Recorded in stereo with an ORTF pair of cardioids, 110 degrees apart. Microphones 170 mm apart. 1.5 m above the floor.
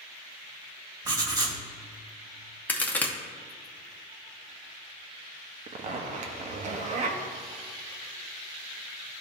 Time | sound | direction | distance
1.1 | writing | 25° right | 1.4 m
2.7 | a crack | 10° left | 0.8 m
5.7 | a zipper | 45° right | 0.8 m